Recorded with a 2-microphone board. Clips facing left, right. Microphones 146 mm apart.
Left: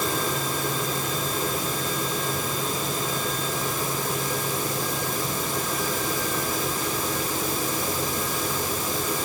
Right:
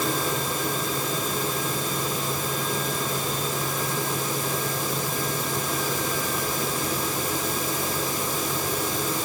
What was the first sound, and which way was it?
Only background noise.